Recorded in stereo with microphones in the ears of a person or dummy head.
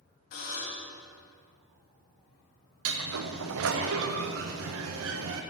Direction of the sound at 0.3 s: 50° left (ahead or behind).